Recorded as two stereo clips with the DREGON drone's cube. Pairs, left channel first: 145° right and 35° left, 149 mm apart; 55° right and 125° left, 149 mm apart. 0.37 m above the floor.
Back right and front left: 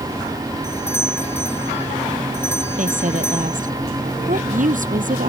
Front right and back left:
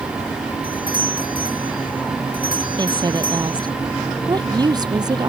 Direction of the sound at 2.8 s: 60° left.